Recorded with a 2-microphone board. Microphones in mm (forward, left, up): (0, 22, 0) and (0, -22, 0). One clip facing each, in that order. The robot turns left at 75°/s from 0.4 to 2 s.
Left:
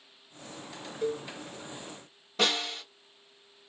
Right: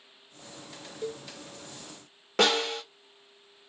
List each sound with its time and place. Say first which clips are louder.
1.0 s a cowbell: left 5 dB; 55° left (ahead or behind), 0.6 m; by 1.3 s 65° left (ahead or behind), 0.6 m
2.4 s a snare drum: right 4 dB; 75° right (ahead or behind), 1.3 m